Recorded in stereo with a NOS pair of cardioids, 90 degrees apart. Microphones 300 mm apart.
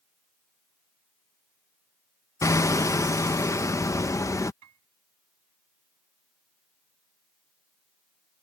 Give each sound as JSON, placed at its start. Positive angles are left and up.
{"t": 2.4, "sound": "hammering", "azimuth_deg": 10}
{"t": 4.6, "sound": "a piano", "azimuth_deg": -65}